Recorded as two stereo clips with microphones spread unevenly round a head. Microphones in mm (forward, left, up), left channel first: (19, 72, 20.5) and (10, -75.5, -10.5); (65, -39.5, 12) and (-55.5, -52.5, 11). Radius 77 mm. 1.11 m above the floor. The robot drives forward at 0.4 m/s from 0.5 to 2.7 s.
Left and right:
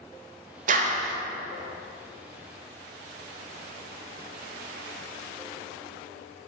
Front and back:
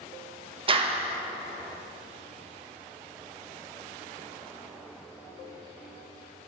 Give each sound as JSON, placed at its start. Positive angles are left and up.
{"t": 0.7, "sound": "a clap", "azimuth_deg": -130, "distance_m": 1.1}